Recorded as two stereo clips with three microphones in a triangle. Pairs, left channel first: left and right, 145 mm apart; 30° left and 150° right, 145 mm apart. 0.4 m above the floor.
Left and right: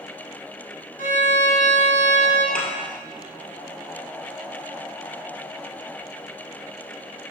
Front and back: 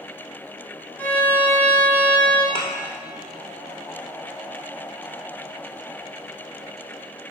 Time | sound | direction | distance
1.0 | a violin | 110° left | 1.2 m
2.5 | a thud | 80° left | 2 m